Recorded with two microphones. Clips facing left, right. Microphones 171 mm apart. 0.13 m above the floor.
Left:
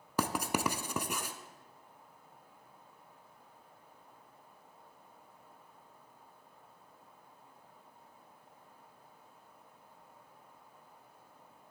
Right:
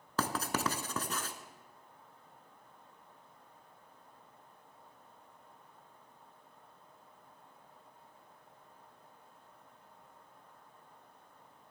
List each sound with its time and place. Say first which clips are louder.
0.2 s writing: left 2 dB; 15° left (ahead or behind), 0.5 m